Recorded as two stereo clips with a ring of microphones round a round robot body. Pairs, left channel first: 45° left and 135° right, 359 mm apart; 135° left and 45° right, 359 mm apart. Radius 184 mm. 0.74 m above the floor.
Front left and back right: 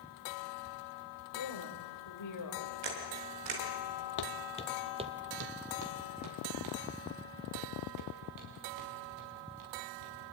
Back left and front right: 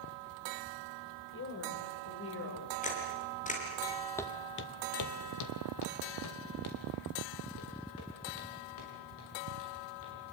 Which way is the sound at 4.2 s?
55° left.